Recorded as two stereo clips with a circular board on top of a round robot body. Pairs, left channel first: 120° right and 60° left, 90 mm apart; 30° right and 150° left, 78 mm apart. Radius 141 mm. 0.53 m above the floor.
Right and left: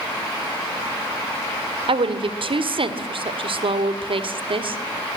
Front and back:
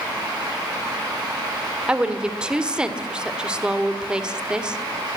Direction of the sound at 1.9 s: 70° left.